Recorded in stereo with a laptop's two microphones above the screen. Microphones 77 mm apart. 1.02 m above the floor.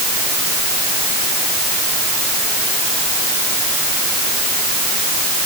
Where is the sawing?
No sawing in this recording.